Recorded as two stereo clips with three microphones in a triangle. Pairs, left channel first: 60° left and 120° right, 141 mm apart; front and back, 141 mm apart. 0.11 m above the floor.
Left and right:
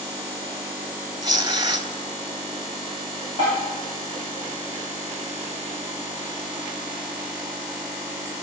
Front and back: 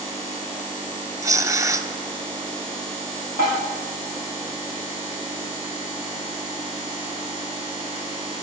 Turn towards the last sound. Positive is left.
turn(degrees=20)